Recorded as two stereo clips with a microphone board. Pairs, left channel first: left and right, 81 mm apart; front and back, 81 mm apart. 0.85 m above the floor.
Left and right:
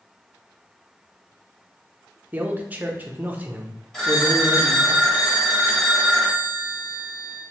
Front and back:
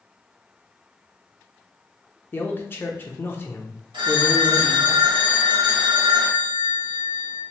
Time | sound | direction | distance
2.3 | a man speaking | 40° right | 0.6 m
3.9 | a phone ringing | 175° left | 1.1 m